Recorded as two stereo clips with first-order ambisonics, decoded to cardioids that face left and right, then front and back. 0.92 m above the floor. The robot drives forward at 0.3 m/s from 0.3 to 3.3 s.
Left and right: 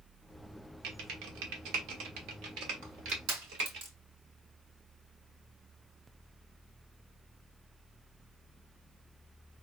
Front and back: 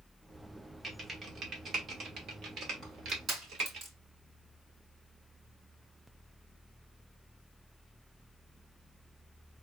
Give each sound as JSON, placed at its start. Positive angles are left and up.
{"t": 0.8, "sound": "typing on a keyboard", "azimuth_deg": -105, "distance_m": 1.1}
{"t": 2.8, "sound": "crushing", "azimuth_deg": -115, "distance_m": 2.5}